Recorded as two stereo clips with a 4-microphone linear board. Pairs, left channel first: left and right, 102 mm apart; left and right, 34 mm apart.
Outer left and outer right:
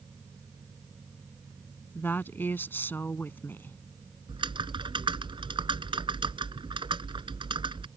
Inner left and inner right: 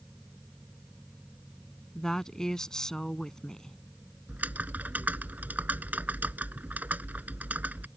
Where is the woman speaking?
20° left (ahead or behind).